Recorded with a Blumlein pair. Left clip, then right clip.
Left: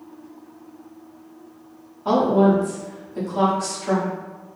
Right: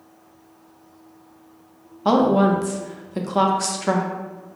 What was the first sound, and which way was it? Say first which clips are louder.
A woman speaking: even; 60° right.